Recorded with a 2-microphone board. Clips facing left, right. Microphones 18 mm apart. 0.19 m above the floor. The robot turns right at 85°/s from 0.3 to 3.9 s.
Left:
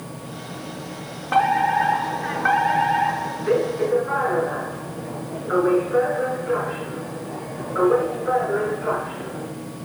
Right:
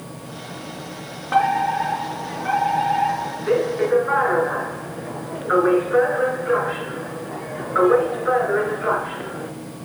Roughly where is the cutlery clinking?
No cutlery clinking in this recording.